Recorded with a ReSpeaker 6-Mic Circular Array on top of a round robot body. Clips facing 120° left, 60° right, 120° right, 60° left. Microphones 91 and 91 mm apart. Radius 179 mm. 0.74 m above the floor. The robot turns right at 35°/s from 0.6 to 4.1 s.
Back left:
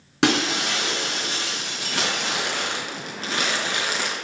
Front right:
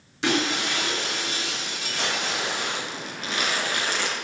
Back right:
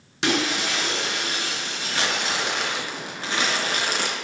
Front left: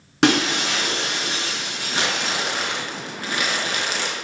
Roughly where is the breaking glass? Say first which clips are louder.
Back left 3 dB, front left 5 dB; left.